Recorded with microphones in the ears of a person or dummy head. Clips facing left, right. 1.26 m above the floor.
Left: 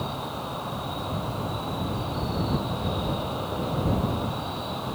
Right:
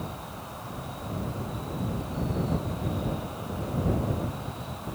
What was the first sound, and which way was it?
An insect, 60° left (ahead or behind).